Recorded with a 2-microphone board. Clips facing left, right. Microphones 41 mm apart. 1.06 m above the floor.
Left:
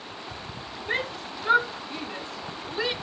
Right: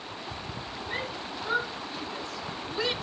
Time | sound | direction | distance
0.9 | a shout | 85° left | 2 m